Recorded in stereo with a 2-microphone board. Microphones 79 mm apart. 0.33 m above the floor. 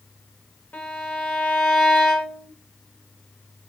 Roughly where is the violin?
Left.